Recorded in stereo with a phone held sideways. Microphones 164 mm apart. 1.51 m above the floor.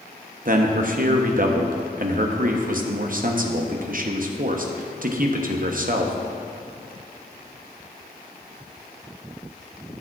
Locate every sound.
0.5 s a man speaking: 55° right (ahead or behind), 0.8 m